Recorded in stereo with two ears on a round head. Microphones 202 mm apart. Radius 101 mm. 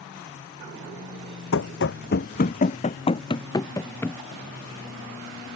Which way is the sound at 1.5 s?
60° left (ahead or behind).